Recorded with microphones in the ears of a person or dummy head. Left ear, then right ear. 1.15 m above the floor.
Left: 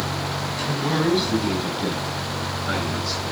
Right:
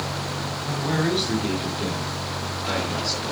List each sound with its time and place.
0.7 s a man speaking: 10° right (ahead or behind), 3.5 m; by 3.3 s 20° right (ahead or behind), 5 m